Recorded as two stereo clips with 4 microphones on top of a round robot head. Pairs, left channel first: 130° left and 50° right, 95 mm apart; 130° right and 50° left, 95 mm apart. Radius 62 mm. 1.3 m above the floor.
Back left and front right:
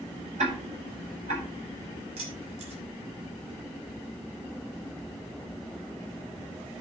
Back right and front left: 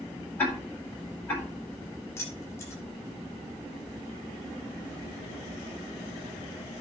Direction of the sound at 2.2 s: 70° right.